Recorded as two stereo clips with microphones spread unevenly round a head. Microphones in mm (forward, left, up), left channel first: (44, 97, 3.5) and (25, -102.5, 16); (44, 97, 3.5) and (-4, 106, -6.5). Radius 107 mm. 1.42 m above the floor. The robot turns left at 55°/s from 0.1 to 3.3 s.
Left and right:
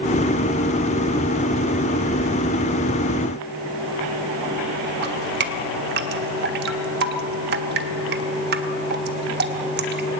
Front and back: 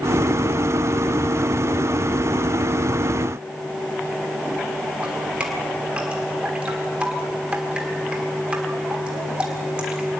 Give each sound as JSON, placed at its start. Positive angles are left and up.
{"t": 5.0, "sound": "dripping", "azimuth_deg": -110, "distance_m": 1.4}